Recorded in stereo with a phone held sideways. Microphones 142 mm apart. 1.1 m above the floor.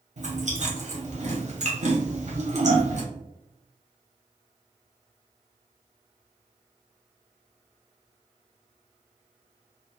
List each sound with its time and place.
0.2 s chewing: 55° right (ahead or behind), 0.9 m